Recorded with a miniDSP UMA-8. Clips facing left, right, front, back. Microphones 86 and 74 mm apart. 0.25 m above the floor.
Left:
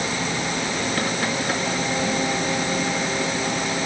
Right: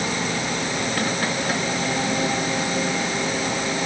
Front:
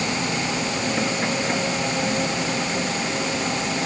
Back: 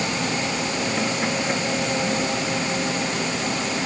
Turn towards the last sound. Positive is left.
No sound to turn to.